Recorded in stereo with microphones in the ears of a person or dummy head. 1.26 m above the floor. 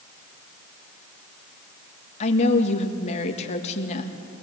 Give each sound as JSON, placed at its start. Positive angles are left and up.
{"t": 2.2, "sound": "a woman speaking", "side_deg": 40, "distance_m": 2.0}